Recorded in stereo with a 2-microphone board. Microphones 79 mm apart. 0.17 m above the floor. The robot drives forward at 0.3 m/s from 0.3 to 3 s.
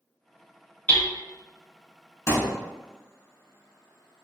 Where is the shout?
No shout in this recording.